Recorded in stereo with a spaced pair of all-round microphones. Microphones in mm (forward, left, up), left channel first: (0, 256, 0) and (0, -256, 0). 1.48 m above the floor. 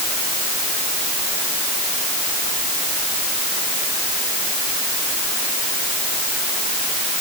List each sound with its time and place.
Only background noise.